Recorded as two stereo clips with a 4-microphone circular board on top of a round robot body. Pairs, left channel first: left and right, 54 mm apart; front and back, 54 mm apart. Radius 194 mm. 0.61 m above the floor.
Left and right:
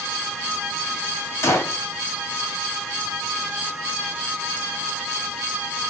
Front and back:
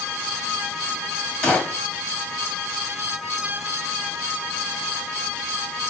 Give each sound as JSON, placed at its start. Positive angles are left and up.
{"t": 1.4, "sound": "a gunshot", "azimuth_deg": 75, "distance_m": 1.3}